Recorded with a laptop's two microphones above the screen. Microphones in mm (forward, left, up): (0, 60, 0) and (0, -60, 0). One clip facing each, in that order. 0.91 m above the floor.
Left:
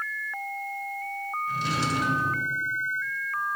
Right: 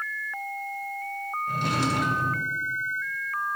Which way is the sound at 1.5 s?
55° right (ahead or behind).